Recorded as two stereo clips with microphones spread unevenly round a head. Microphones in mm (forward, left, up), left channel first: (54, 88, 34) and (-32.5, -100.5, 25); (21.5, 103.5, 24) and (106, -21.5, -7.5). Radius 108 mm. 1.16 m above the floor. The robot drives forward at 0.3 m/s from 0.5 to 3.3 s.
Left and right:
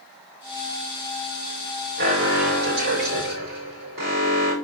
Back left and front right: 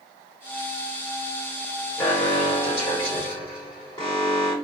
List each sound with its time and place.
2.0 s an alarm: 155° right, 4 m; by 4.5 s 160° right, 4.5 m